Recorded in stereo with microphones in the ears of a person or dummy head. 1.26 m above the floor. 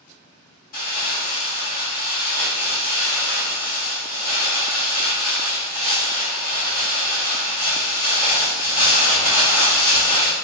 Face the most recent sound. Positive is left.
turn(degrees=45)  # may be behind; listen again after turning